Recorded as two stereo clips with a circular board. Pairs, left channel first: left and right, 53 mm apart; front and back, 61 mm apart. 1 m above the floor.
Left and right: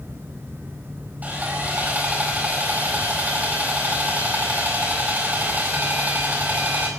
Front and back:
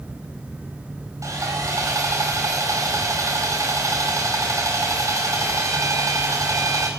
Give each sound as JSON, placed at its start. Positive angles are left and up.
{"t": 1.2, "sound": "sawing", "azimuth_deg": -150, "distance_m": 5.0}